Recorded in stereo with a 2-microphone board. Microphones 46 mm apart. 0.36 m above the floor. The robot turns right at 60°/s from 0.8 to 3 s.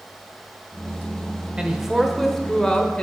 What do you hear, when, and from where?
1.6 s a man speaking: 35° right, 1.0 m; by 3.0 s 50° left, 1.0 m